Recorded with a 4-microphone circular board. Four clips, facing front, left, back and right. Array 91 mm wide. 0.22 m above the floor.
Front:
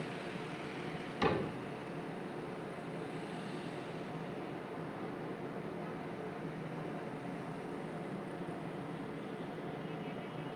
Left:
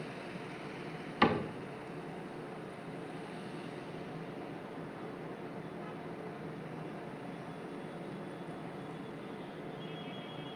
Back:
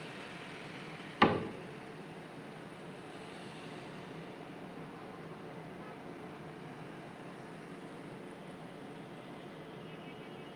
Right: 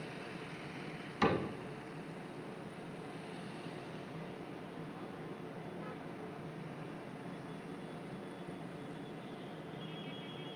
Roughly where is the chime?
I don't hear a chime.